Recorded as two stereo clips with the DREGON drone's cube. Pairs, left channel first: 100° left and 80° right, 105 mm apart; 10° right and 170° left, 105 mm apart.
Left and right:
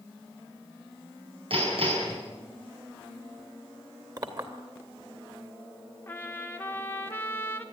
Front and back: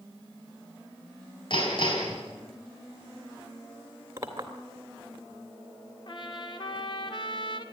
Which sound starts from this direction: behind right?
A clink, at 4.2 s.